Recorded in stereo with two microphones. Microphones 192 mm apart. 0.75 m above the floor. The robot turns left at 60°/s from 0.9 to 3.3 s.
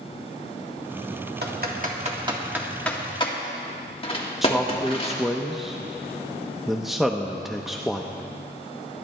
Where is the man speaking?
Centre (ahead or behind), 0.7 m.